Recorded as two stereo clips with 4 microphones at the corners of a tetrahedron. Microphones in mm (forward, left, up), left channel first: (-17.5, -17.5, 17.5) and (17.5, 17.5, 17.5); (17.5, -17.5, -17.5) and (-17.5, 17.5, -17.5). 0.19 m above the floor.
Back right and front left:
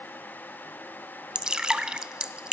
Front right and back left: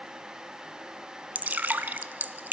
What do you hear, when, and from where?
1.4 s dripping: 110° left, 0.9 m